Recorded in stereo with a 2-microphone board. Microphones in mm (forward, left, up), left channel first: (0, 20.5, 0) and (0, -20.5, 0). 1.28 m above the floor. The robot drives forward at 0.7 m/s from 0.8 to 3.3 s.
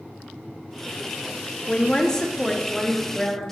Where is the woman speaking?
25° left (ahead or behind), 0.6 m; by 3.5 s 10° left (ahead or behind), 1.7 m.